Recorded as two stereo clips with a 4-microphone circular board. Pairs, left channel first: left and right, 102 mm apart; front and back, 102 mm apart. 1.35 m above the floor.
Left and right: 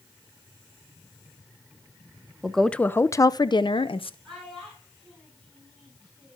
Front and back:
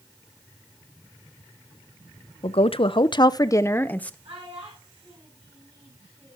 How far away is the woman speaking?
About 0.7 m.